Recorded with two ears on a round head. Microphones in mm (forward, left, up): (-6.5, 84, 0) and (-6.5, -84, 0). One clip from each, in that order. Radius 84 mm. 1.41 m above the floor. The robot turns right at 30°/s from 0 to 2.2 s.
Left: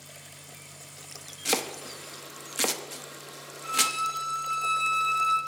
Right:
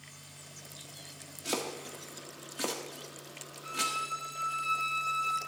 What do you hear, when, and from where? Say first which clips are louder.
1.4 s chopping: left 6 dB; 50° left (ahead or behind), 1.0 m; by 4.0 s 55° left (ahead or behind), 1.0 m
3.6 s a violin: left 6 dB; 30° left (ahead or behind), 2 m